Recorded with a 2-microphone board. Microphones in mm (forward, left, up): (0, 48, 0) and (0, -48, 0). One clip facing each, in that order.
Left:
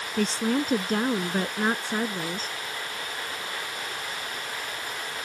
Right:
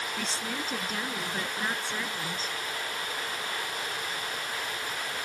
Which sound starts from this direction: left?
A woman speaking, at 0.2 s.